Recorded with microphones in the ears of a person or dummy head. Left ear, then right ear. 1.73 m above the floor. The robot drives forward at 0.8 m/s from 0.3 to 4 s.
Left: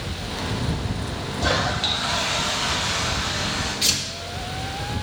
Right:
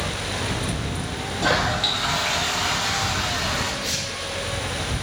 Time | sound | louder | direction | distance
1.4 | a toilet flushing | right 1 dB | 10° right (ahead or behind) | 0.5 m
3.8 | tearing paper | left 5 dB | 70° left (ahead or behind) | 5 m